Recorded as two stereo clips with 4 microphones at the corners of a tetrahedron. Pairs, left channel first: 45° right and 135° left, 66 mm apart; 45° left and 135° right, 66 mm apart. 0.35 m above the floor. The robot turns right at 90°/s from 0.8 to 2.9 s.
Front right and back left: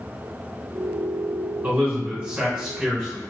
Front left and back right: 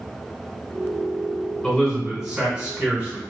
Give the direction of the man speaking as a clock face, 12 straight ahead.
8 o'clock.